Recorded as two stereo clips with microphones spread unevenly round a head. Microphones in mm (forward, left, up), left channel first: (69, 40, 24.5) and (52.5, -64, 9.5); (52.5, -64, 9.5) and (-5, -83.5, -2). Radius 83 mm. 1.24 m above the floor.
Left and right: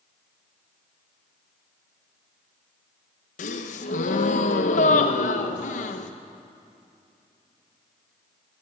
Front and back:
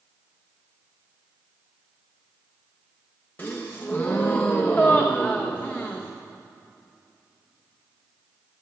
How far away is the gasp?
About 0.8 m.